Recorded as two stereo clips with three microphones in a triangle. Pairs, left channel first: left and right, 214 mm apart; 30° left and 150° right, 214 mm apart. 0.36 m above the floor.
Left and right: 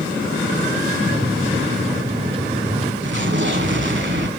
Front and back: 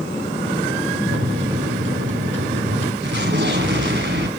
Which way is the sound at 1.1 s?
150° right.